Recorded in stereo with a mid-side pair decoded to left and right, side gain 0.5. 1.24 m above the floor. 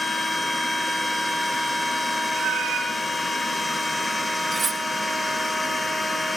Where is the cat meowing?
70° right, 7.5 m.